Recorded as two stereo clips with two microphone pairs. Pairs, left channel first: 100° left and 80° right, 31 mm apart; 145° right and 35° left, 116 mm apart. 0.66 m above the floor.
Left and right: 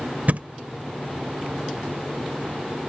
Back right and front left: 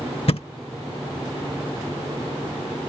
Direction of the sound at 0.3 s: 115° right.